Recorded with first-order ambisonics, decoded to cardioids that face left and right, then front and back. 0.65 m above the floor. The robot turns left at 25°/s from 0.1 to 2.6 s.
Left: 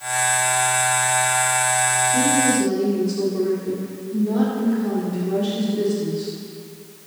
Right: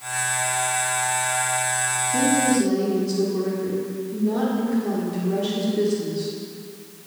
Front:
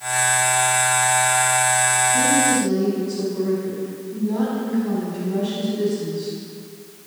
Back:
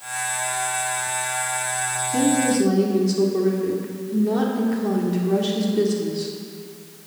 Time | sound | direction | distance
2.1 | a woman speaking | 165° right | 2 m